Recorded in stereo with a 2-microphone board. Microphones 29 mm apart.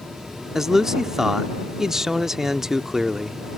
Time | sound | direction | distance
0.6 | a man speaking | 15° right (ahead or behind) | ?